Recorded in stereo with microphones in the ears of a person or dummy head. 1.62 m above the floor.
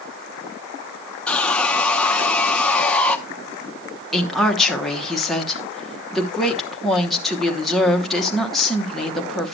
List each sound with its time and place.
1.3 s sawing: centre (ahead or behind), 0.7 m
4.1 s a woman speaking: 5° right (ahead or behind), 0.9 m